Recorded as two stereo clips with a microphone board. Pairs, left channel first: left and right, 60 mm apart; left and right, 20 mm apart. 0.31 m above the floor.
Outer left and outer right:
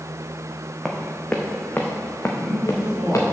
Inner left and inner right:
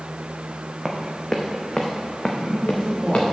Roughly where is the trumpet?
No trumpet in this recording.